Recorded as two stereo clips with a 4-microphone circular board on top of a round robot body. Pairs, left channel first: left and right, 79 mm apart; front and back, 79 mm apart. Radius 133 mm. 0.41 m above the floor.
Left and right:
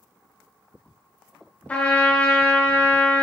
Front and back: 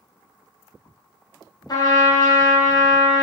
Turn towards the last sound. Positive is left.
turn(degrees=20)